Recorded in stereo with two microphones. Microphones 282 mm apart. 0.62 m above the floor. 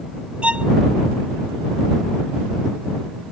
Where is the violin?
5° right (ahead or behind).